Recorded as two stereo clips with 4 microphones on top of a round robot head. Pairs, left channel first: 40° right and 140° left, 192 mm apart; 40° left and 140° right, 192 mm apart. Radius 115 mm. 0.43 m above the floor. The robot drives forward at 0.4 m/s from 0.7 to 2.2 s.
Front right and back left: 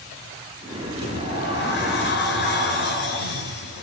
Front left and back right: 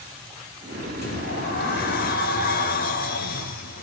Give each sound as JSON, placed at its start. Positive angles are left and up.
{"t": 1.0, "sound": "a sliding door", "azimuth_deg": -5, "distance_m": 5.0}